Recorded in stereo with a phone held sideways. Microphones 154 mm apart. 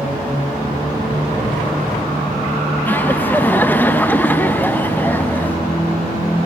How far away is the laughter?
About 0.9 m.